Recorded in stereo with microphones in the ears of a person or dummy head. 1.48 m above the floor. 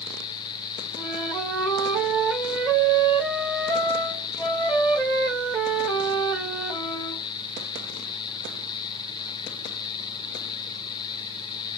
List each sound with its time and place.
0.9 s a flute: 5° right (ahead or behind), 1.7 m